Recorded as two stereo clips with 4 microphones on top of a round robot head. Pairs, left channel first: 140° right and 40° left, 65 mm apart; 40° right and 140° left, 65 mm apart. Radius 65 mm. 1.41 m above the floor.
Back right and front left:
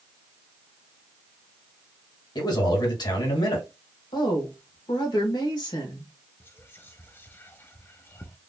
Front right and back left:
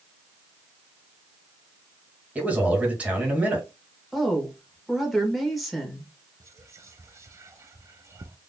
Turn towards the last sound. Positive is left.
turn(degrees=170)